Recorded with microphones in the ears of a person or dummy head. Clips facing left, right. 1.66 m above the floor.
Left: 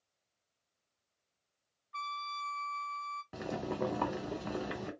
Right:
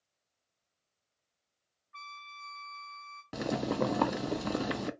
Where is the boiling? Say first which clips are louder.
Right 6 dB; 55° right (ahead or behind), 0.5 m.